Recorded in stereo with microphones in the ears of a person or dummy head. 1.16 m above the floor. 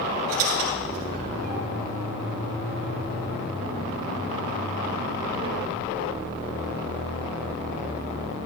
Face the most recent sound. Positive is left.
turn(degrees=-50)  # may be behind; listen again after turning